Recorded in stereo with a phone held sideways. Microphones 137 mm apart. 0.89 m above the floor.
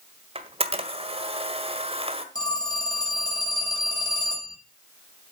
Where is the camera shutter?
45° right (ahead or behind), 1.6 m.